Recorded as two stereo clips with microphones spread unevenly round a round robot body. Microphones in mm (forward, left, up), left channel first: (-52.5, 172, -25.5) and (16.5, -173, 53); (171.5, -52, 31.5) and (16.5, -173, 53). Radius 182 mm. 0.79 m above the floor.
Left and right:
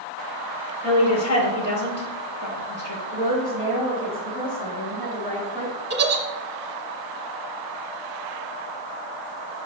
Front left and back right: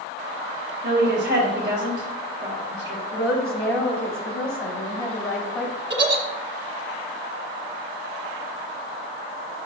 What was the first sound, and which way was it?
A woman speaking, 145° left.